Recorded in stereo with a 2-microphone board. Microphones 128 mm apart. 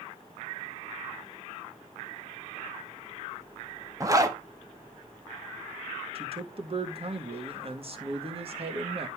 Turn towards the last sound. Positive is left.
turn(degrees=-45)  # may be behind; listen again after turning